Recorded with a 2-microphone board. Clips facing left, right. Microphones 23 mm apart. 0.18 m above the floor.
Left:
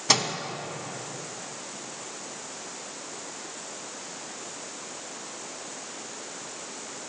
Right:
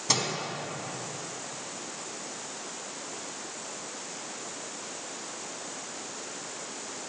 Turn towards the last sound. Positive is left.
turn(degrees=30)  # may be behind; listen again after turning